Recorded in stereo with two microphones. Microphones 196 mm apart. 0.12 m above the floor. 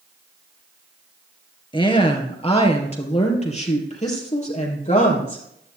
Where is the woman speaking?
25° left (ahead or behind), 2 m; by 5.4 s 40° left (ahead or behind), 4 m.